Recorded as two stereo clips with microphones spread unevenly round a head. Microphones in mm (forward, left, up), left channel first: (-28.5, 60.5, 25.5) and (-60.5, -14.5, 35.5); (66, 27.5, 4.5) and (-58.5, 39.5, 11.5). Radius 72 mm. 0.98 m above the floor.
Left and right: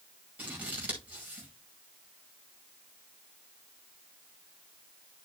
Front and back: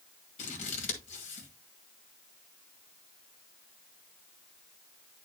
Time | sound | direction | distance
0.4 | scissors | 40° right | 2 m